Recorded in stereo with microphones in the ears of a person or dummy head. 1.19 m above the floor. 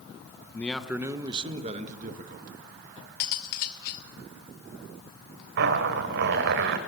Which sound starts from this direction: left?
Cutlery clinking, at 3.2 s.